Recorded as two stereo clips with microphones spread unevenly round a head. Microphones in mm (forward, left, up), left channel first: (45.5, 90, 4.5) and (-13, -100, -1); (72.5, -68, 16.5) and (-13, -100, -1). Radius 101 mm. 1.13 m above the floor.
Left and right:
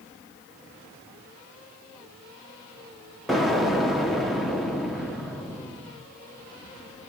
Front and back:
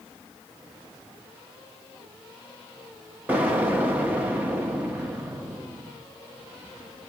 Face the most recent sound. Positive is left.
turn(degrees=165)